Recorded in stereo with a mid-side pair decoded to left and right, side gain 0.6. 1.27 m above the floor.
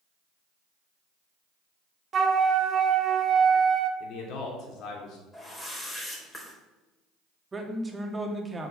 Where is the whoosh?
20° left, 4 m.